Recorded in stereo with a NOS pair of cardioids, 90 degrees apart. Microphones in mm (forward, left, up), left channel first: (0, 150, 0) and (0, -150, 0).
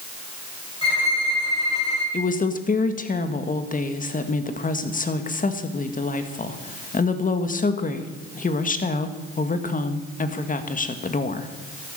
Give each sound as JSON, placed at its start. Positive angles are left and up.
{"t": 0.8, "sound": "a violin", "azimuth_deg": 20, "distance_m": 7.5}
{"t": 2.1, "sound": "a woman speaking", "azimuth_deg": 25, "distance_m": 1.9}